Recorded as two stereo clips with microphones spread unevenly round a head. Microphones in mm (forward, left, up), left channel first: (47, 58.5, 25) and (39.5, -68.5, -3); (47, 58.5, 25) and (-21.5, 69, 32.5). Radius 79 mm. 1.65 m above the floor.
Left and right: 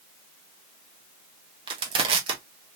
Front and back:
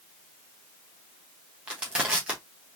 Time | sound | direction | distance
1.7 | crushing | 130° right | 0.9 m